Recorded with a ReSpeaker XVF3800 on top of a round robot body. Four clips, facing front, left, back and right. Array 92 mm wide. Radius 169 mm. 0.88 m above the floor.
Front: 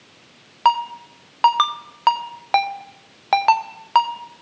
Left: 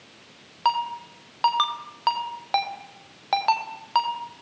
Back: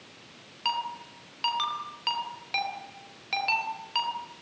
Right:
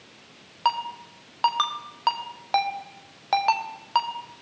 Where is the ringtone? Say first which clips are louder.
Left 2 dB, front 13 dB; 5° right, 1.3 m.